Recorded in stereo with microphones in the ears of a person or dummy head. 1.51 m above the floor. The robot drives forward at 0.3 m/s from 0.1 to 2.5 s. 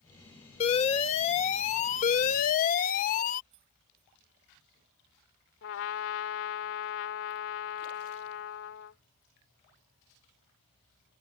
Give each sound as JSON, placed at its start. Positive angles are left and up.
{"t": 0.6, "sound": "an alarm", "side_deg": 30}
{"t": 3.5, "sound": "keys jangling", "side_deg": -30}
{"t": 5.6, "sound": "a trumpet", "side_deg": 70}